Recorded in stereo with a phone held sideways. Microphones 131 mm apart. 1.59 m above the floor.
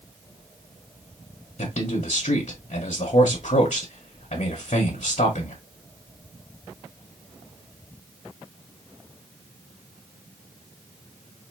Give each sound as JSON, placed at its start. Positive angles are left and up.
{"t": 1.6, "sound": "a man speaking", "side_deg": 60, "distance_m": 1.2}